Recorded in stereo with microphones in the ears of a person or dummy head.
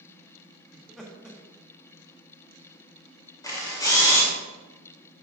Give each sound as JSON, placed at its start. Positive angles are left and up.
{"t": 0.7, "sound": "laughter", "side_deg": 0, "distance_m": 1.3}
{"t": 3.4, "sound": "a camera shutter", "side_deg": 15, "distance_m": 1.7}